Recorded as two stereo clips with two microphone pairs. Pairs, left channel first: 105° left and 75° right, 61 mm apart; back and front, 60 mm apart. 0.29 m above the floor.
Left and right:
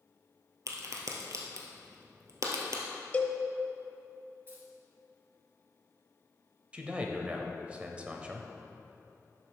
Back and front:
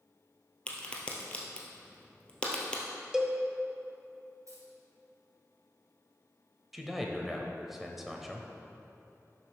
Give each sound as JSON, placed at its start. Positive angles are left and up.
{"t": 0.7, "sound": "a crack", "azimuth_deg": -105, "distance_m": 1.5}
{"t": 3.1, "sound": "a cowbell", "azimuth_deg": 65, "distance_m": 0.9}
{"t": 4.5, "sound": "keys jangling", "azimuth_deg": -20, "distance_m": 3.0}
{"t": 6.7, "sound": "a man speaking", "azimuth_deg": -75, "distance_m": 0.9}